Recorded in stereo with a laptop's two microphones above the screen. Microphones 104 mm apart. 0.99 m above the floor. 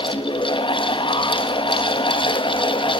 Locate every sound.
0.0 s a fan: 55° left (ahead or behind), 1.9 m